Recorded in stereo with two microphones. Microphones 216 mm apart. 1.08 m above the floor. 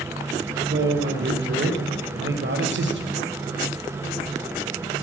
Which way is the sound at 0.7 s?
60° right (ahead or behind).